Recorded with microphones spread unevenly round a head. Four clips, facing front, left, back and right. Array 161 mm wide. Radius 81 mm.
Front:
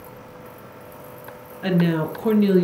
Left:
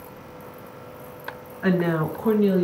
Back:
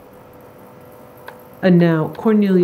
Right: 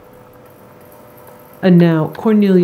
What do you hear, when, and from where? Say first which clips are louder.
1.6 s a woman speaking: right 11 dB, back 8 dB; 120° right, 0.8 m; by 2.6 s 85° right, 1.2 m